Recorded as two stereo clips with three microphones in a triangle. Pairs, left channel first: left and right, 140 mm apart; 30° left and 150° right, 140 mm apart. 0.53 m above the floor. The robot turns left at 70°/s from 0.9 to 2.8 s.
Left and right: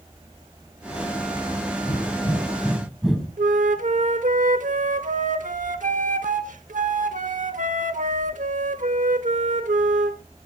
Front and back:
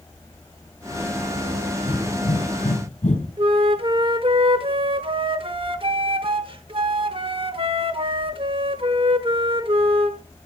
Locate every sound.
1.8 s breathing: 65° left, 2.5 m; by 3.3 s 5° right, 2.5 m
3.4 s a flute: 100° right, 0.8 m